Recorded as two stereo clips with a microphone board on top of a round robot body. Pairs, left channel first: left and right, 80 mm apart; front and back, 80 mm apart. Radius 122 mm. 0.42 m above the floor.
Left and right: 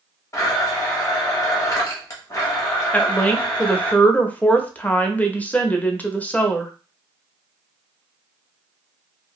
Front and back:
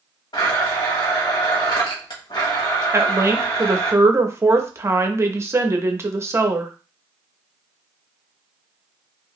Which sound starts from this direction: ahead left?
A blender, at 0.3 s.